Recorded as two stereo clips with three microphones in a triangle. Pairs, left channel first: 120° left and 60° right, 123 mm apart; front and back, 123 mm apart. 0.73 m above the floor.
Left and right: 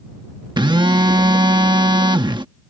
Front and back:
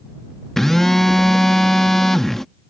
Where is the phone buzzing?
85° right.